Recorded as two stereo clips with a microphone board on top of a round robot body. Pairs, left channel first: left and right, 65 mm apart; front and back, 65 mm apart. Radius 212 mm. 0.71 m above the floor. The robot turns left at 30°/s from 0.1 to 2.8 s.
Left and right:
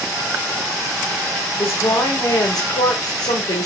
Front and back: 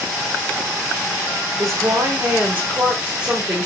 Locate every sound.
1.6 s a woman speaking: 140° left, 3.5 m; by 3.7 s 105° left, 3.5 m